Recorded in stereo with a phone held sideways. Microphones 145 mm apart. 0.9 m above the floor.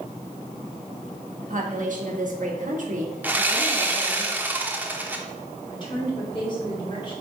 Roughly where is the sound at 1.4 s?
Right.